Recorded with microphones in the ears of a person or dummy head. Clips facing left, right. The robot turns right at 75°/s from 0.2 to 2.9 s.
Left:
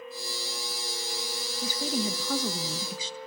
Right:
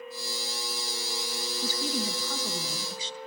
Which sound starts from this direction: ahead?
A woman speaking, at 1.6 s.